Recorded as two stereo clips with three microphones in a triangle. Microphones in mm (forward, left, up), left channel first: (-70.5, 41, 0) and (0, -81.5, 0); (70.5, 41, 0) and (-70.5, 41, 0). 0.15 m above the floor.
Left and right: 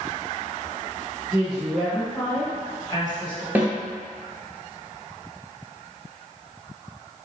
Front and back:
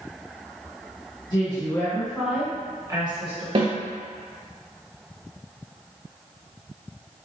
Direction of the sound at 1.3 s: 10° left.